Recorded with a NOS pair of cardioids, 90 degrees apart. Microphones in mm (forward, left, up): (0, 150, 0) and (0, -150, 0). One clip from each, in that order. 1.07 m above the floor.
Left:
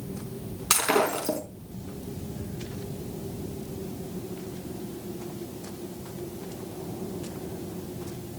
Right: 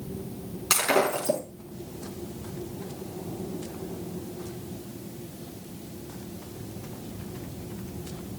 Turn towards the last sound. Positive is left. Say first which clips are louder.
# even
turn(degrees=25)